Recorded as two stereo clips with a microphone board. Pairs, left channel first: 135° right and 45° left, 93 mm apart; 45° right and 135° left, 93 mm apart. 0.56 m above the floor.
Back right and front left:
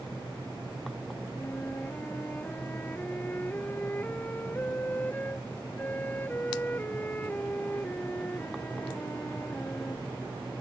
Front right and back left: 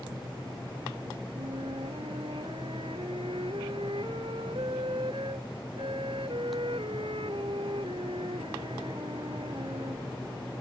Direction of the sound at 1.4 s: 155° left.